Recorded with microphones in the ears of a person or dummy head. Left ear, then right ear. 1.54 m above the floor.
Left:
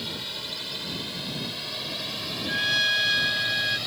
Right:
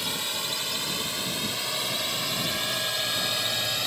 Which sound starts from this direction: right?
A drone, at 0.0 s.